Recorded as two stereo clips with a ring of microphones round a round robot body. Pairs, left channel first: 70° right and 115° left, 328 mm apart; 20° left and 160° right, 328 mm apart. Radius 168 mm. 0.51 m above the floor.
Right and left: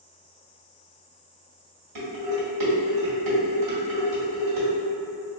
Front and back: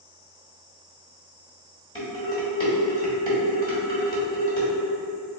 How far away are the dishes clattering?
About 1.8 m.